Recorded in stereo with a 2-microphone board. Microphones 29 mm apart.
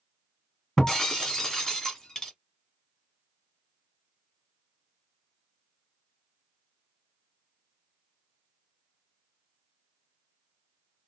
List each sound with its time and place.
0.8 s breaking glass: 20° left (ahead or behind), 1.4 m